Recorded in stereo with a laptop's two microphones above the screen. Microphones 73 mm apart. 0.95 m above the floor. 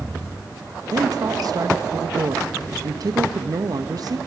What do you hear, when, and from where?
0.9 s a woman speaking: 55° right (ahead or behind), 1.1 m